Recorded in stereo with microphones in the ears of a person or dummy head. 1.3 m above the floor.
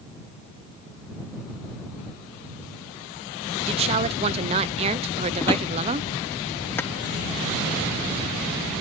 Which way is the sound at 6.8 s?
10° left (ahead or behind).